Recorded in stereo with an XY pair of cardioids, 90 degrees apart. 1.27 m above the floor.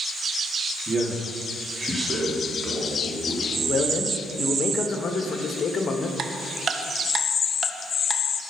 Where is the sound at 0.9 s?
25° right, 3 m; by 3.9 s straight ahead, 4 m.